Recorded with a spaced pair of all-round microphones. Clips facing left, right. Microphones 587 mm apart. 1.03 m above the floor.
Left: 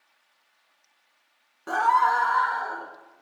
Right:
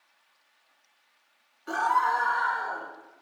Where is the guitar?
I don't hear a guitar.